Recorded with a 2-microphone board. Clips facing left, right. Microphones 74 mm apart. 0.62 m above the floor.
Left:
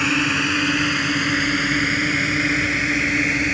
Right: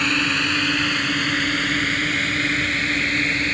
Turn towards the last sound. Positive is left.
turn(degrees=10)  # may be behind; listen again after turning